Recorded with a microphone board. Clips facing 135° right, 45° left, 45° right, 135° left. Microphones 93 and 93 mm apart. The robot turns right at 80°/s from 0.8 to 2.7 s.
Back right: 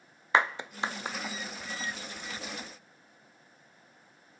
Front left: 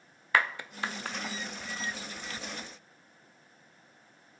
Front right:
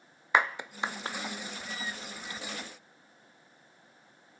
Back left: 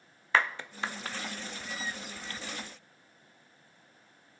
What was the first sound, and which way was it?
A clap, 95° right.